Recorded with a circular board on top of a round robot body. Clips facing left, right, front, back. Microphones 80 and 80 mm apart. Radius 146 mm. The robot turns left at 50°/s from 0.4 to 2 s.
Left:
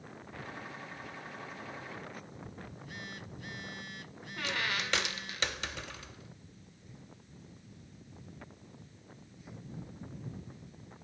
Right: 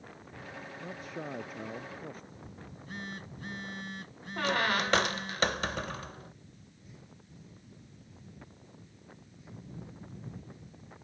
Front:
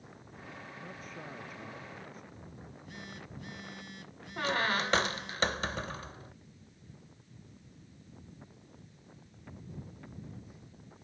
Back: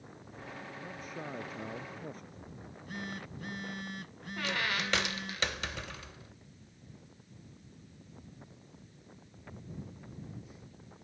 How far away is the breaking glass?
No breaking glass in this recording.